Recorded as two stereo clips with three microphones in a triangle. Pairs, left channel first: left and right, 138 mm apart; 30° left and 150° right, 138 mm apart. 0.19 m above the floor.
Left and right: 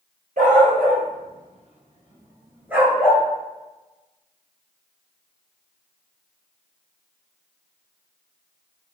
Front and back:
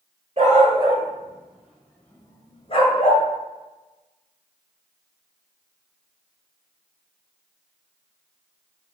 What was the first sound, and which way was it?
A dog barking, 105° right.